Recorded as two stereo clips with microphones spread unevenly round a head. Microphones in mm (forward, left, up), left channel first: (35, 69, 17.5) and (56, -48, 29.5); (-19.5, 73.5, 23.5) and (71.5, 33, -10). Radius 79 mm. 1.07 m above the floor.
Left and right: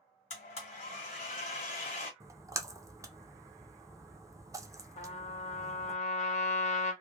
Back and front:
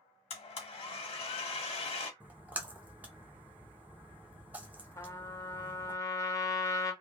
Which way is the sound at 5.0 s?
90° left.